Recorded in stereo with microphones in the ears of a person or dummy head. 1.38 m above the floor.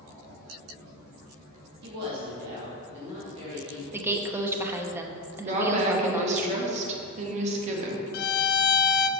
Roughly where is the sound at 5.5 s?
Right.